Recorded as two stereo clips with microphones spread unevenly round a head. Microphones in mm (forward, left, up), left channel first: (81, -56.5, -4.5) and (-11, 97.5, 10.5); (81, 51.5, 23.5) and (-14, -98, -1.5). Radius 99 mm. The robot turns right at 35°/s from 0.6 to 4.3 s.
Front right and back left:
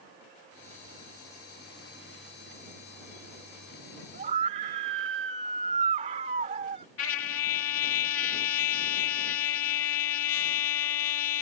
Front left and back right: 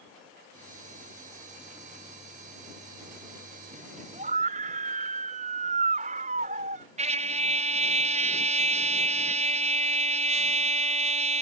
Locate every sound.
4.1 s a scream: 175° left; by 6.8 s straight behind
7.0 s a trumpet: 70° right